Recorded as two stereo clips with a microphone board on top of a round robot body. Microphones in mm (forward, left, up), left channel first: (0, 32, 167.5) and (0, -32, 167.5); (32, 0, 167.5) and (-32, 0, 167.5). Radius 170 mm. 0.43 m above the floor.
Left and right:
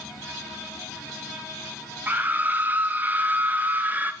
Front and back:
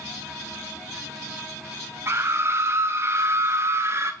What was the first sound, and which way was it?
A scream, 145° right.